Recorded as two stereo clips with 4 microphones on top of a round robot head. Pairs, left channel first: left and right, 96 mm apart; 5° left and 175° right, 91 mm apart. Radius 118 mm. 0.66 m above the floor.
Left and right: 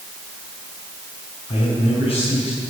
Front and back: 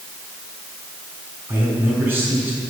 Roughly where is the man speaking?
Behind left.